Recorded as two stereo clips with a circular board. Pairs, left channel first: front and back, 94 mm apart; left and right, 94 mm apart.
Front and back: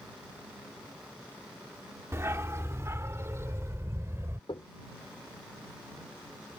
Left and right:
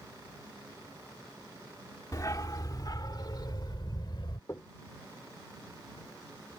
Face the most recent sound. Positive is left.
turn(degrees=25)